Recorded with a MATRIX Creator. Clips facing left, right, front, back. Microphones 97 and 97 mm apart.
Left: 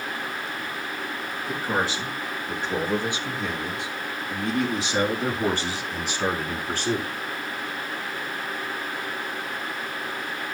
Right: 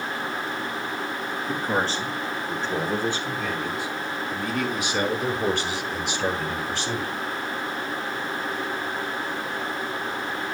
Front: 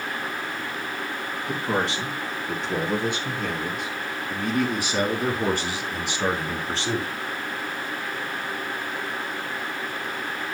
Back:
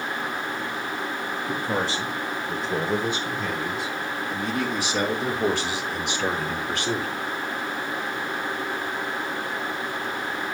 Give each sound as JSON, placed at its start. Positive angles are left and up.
{"t": 1.5, "sound": "a man speaking", "azimuth_deg": 5, "distance_m": 5.0}